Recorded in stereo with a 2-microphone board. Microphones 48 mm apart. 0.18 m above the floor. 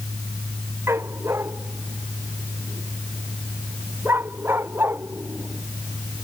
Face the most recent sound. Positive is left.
turn(degrees=-45)  # may be behind; listen again after turning